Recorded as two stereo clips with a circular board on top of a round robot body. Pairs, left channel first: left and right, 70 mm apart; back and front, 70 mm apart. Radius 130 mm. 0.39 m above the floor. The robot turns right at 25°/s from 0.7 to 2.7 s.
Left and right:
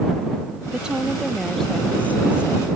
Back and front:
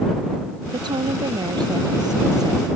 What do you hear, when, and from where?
0.7 s a woman speaking: 15° right; by 2.7 s 35° left